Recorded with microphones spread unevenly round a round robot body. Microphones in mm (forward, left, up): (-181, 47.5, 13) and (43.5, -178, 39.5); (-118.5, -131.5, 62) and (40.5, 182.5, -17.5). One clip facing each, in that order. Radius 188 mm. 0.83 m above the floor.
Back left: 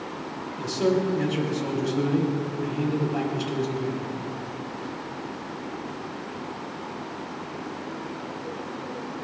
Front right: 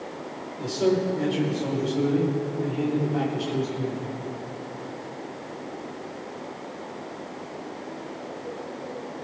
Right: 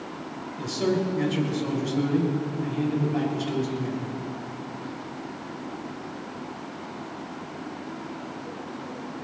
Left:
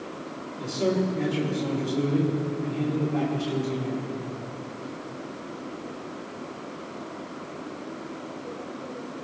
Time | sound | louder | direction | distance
0.6 | a man speaking | even, even | 175° right | 4.5 m